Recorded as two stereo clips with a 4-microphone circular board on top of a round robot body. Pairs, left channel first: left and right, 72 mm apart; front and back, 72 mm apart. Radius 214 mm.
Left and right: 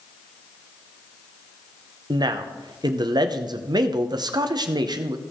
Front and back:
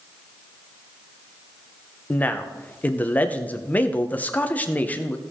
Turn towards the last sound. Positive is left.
turn(degrees=-70)